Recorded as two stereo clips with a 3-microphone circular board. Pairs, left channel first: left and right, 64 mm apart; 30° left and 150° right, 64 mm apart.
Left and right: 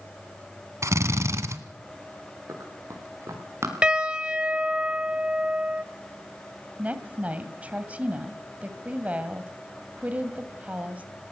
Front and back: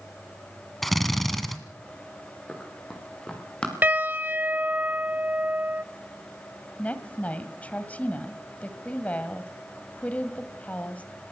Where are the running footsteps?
50° right, 8 m; by 3.7 s 45° right, 6 m.